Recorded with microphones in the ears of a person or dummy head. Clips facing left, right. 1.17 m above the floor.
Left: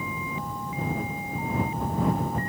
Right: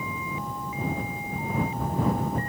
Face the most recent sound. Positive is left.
No sound to turn to.